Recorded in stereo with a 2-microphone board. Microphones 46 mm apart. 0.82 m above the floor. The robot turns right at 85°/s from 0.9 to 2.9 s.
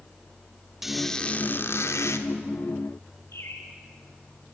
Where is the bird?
75° left (ahead or behind), 5.5 m.